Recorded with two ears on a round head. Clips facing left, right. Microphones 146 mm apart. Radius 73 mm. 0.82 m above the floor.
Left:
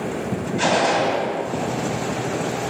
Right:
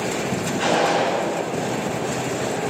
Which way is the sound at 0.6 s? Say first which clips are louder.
Left 1 dB; 65° left (ahead or behind).